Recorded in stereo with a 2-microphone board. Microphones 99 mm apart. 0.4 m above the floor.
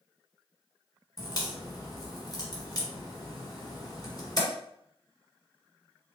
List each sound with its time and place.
1.2 s a crack: 40° left (ahead or behind), 1.4 m